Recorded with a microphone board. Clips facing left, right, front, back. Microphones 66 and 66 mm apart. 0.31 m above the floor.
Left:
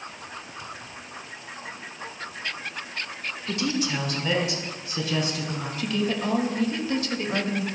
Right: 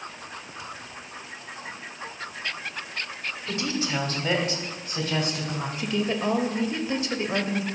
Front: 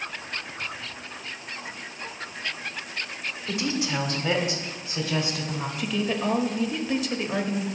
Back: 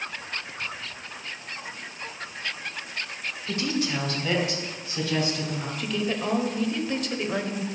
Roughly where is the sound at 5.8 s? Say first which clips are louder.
Even, front 2 dB; right.